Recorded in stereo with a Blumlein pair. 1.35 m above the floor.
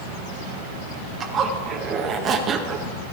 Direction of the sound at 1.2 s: 25° right.